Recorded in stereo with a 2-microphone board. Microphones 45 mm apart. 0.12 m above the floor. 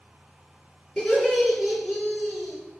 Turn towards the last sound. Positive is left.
turn(degrees=-45)  # may be behind; listen again after turning